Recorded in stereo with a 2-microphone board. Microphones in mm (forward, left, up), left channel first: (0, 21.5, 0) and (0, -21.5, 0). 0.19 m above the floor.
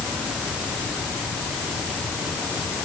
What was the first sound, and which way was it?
Only background noise.